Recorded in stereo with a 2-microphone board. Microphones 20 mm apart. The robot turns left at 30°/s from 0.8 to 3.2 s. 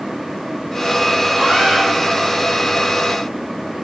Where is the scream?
50° right (ahead or behind), 8.5 m; by 1.8 s 60° right (ahead or behind), 8.5 m.